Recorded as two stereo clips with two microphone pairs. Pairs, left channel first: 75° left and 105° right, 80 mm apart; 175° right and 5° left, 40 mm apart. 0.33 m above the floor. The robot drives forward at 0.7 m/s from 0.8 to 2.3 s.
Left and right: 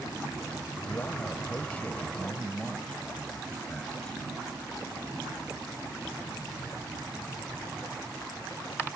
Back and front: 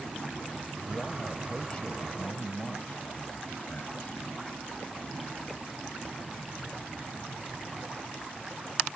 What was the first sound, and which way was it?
A man speaking, 105° left.